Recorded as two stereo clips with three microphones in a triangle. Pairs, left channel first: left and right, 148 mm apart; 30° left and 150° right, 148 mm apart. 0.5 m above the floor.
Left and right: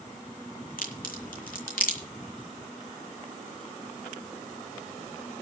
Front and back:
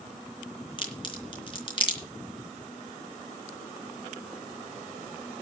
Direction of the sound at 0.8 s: 85° left.